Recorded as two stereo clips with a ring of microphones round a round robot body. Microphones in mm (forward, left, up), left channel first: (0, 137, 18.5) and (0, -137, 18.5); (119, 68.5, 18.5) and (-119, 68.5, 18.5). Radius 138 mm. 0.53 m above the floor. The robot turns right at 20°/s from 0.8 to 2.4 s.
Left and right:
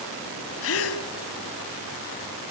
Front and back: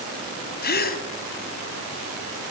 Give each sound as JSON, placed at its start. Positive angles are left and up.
{"t": 0.6, "sound": "a gasp", "azimuth_deg": 50, "distance_m": 1.9}